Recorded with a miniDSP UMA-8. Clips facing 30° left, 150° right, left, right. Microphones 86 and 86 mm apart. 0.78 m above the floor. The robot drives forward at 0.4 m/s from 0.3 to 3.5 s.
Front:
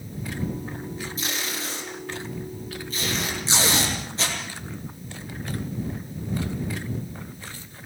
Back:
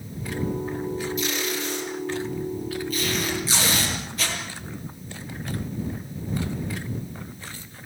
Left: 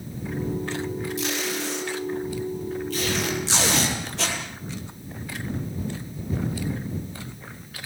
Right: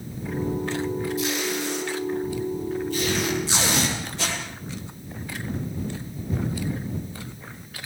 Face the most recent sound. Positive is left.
turn(degrees=90)